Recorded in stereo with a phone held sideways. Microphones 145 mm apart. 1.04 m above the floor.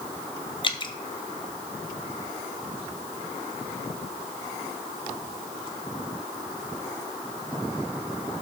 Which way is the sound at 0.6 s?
35° left (ahead or behind).